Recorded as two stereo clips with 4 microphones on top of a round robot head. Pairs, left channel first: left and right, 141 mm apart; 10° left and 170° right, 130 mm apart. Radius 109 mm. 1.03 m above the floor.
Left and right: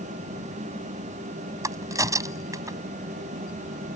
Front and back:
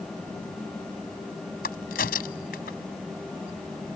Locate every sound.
1.6 s a crack: 25° right